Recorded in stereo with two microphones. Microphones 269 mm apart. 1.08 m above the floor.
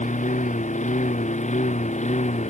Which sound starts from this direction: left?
A lawn mower, at 0.0 s.